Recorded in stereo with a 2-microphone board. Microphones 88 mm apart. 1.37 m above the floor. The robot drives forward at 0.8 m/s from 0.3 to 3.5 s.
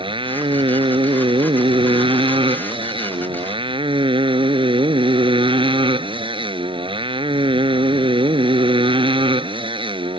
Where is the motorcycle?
80° right; by 10.2 s 85° right.